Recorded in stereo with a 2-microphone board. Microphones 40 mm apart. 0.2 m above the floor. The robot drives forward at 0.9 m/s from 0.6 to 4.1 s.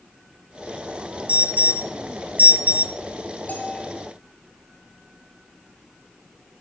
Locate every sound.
1.3 s an alarm: 35° right (ahead or behind), 1.7 m
3.5 s a bell: 40° left (ahead or behind), 4 m